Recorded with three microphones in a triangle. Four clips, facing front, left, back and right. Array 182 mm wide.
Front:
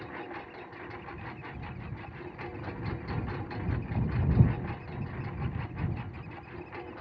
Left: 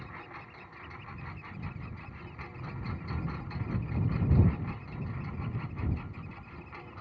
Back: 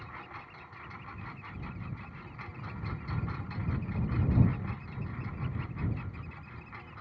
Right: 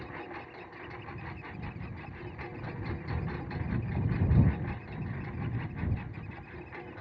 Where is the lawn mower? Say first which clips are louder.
Right 4 dB, front 5 dB; 30° right; by 7.0 s 20° right.